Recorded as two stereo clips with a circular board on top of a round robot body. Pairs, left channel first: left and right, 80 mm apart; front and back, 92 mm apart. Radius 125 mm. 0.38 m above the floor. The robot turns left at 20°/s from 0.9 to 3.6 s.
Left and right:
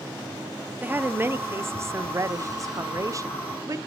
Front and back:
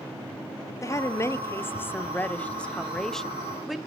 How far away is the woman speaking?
About 0.9 m.